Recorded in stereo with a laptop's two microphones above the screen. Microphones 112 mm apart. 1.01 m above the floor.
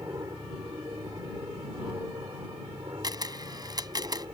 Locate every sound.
0.0 s an aircraft: 35° right (ahead or behind)
3.0 s a camera shutter: 40° right (ahead or behind)